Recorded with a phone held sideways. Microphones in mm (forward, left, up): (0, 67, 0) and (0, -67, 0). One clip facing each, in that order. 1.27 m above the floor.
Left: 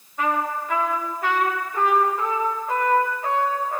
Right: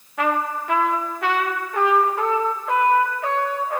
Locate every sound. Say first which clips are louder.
0.2 s a trumpet: right 1 dB; 80° right, 1.2 m